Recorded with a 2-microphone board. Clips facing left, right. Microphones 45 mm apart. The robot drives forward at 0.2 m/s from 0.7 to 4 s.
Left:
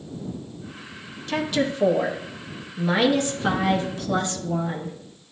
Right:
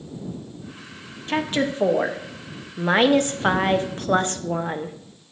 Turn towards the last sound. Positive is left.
turn(degrees=-40)  # may be behind; listen again after turning